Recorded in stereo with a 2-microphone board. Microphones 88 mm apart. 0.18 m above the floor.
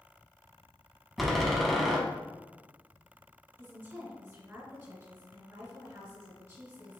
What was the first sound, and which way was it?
A door slam, centre (ahead or behind).